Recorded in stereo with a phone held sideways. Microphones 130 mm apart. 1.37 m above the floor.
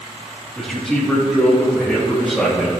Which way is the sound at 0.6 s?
5° left (ahead or behind).